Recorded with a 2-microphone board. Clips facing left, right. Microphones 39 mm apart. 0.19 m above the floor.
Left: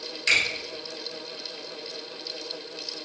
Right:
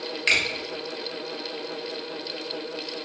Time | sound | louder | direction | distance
0.3 | a finger snap | even | 30° right (ahead or behind) | 1.0 m